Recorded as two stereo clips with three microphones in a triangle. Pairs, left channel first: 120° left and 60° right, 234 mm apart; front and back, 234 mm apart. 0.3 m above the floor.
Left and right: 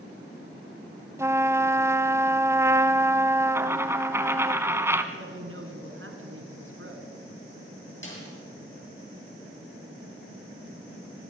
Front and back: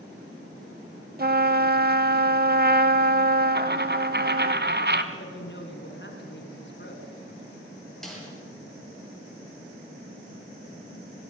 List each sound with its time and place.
1.2 s a trumpet: 135° right, 0.8 m
3.5 s a dropped coin: 140° right, 1.3 m
5.1 s a woman speaking: 35° right, 2.5 m
8.0 s a snare drum: 90° left, 7 m